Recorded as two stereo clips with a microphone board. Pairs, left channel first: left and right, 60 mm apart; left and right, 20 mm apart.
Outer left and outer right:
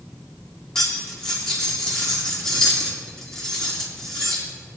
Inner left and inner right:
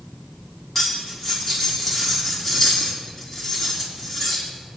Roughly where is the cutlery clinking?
Centre.